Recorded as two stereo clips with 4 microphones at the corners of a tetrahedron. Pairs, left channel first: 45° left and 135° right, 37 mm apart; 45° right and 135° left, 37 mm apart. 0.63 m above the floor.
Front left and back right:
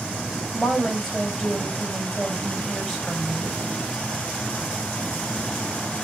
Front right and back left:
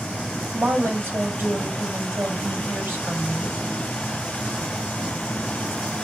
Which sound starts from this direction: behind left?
A woman speaking, at 0.5 s.